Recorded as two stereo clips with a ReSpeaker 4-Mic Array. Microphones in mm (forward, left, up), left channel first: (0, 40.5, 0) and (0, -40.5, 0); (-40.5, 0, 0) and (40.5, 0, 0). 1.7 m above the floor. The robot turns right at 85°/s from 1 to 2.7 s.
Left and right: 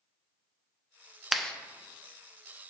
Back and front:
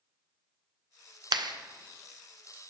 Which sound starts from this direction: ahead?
A clap, at 1.3 s.